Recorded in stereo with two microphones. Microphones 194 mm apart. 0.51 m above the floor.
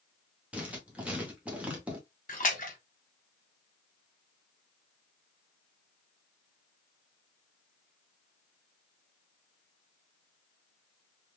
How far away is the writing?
About 1.0 m.